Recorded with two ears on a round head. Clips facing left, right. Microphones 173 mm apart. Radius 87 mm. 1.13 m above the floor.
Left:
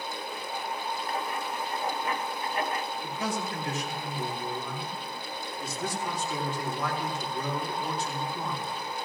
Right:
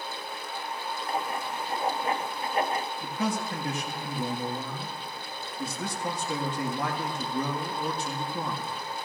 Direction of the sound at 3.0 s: 50° right (ahead or behind).